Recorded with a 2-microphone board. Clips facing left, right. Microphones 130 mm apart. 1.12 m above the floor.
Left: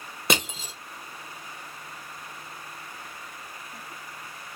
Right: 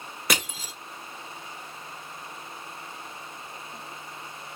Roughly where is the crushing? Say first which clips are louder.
Left 3 dB; left.